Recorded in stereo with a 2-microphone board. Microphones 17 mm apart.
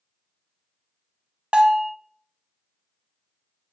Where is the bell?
55° right (ahead or behind), 0.7 m.